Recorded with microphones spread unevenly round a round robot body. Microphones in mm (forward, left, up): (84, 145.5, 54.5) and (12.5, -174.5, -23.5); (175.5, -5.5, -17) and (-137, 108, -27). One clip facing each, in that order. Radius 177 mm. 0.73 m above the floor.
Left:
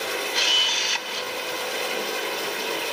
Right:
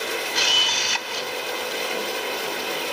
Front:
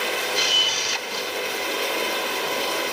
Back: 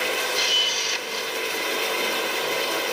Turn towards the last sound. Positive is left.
turn(degrees=-65)